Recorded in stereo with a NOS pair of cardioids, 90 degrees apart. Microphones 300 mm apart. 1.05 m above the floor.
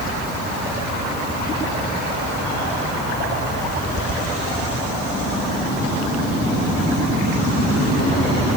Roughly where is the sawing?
No sawing in this recording.